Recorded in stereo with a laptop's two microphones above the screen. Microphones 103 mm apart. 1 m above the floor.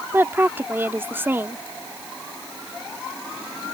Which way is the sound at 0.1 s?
20° right (ahead or behind).